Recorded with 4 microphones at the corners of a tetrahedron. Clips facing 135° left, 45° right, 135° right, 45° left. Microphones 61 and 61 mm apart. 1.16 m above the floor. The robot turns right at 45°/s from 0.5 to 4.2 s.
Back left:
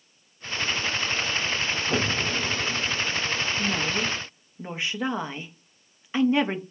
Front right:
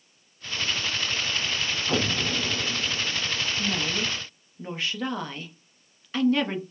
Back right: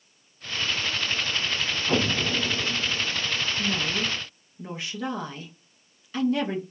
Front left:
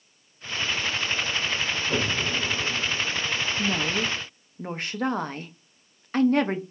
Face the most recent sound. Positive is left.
turn(degrees=70)